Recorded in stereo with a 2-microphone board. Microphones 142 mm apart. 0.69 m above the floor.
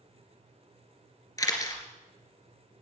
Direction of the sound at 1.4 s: 20° left (ahead or behind).